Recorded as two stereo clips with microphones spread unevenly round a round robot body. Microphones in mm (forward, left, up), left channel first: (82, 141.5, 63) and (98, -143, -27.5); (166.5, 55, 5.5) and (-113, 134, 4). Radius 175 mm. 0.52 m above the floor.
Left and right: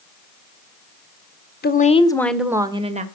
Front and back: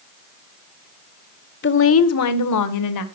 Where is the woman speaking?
30° left, 1.9 m; by 3.0 s 30° right, 2.5 m.